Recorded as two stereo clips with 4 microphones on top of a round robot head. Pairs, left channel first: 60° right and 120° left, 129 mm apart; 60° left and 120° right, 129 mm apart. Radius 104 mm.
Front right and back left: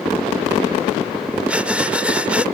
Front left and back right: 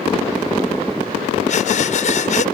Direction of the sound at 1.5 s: 40° left.